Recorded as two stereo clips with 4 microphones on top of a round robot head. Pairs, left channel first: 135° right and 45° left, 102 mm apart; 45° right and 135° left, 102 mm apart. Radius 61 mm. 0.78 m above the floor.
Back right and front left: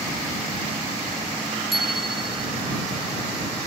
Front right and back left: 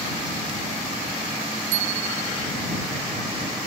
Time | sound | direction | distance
1.7 | a bicycle bell | 135° left | ?